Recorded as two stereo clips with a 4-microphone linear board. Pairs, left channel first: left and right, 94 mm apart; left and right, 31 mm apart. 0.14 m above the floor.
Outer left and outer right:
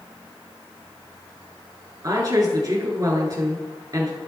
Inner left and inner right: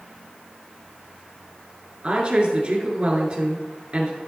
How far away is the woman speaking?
About 1.8 m.